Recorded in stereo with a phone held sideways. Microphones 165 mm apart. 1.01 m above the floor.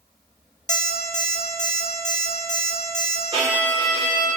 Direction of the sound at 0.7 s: 45° left (ahead or behind).